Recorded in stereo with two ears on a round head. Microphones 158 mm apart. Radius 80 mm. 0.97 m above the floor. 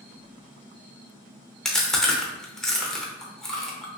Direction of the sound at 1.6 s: 5° left (ahead or behind).